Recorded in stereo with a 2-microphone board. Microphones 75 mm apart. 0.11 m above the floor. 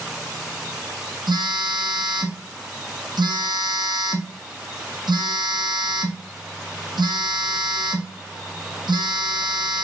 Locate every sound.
1.3 s a phone buzzing: 80° right, 0.9 m